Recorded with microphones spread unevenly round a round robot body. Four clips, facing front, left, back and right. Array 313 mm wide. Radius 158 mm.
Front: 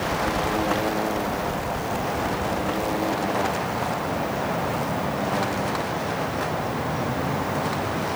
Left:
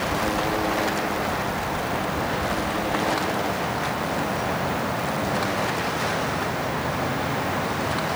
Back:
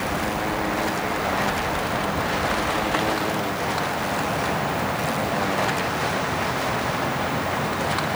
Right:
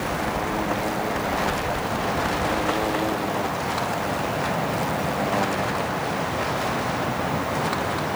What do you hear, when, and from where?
Only background noise.